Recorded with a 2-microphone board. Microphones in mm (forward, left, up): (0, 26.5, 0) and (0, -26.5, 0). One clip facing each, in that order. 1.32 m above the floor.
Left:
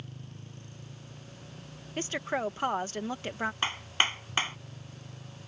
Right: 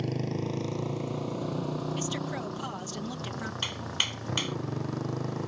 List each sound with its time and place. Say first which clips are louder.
0.0 s a motorcycle: right 17 dB; 75° right (ahead or behind)
2.0 s a woman speaking: left 1 dB; 40° left (ahead or behind)
3.6 s hammering: left 5 dB; 30° left (ahead or behind)